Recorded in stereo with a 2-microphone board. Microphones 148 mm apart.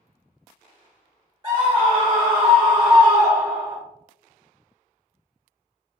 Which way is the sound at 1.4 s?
30° right (ahead or behind).